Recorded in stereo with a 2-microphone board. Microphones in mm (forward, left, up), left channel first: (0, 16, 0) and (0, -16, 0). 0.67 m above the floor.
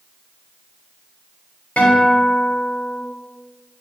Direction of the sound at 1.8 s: 55° left (ahead or behind).